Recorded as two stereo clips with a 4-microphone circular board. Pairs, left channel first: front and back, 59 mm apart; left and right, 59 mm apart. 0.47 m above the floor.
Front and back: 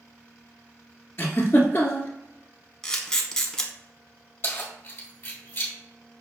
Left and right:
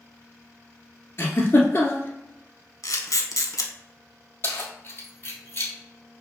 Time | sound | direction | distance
1.2 | a giggle | 45° left | 1.0 m
2.8 | a camera shutter | 75° left | 0.8 m
4.4 | keys jangling | 45° left | 1.3 m